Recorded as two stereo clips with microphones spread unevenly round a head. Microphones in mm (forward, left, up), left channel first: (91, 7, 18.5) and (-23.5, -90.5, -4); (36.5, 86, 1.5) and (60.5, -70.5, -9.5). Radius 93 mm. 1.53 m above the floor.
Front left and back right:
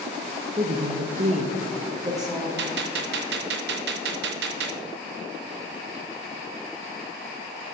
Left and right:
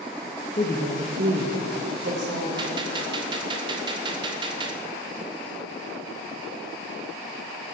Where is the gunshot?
150° right, 0.6 m.